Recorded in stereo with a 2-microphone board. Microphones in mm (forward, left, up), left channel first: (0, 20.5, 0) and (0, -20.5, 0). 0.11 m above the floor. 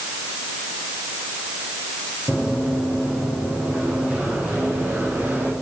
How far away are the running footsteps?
About 9.5 m.